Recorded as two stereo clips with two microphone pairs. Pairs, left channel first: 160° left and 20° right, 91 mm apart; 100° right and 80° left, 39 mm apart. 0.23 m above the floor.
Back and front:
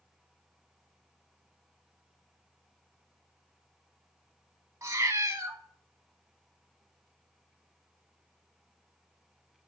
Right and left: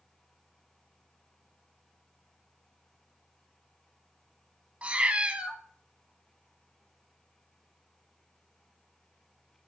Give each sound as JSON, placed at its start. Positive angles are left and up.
{"t": 4.8, "sound": "a cat meowing", "azimuth_deg": 35, "distance_m": 0.5}